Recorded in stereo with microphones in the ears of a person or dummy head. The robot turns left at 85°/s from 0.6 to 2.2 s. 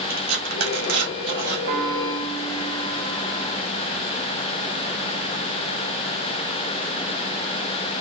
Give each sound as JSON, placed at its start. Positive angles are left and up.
{"t": 0.1, "sound": "tearing paper", "side_deg": -90, "distance_m": 1.9}
{"t": 1.7, "sound": "a piano", "azimuth_deg": -145, "distance_m": 1.0}